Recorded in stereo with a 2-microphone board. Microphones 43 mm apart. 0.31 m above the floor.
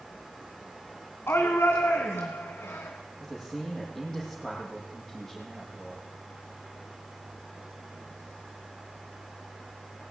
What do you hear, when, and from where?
1.3 s a shout: 65° left (ahead or behind), 2.5 m
3.2 s a man speaking: 5° left (ahead or behind), 9.5 m